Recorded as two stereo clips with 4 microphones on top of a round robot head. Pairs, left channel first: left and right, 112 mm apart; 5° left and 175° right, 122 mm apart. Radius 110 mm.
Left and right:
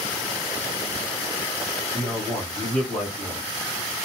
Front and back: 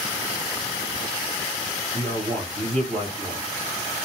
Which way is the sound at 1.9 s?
Straight behind.